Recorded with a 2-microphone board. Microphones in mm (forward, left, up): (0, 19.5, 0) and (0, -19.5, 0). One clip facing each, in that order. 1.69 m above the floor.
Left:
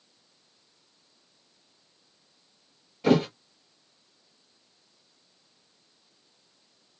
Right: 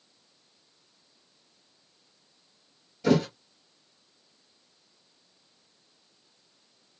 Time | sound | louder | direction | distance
3.0 | a thud | left 1 dB | 25° left (ahead or behind) | 2 m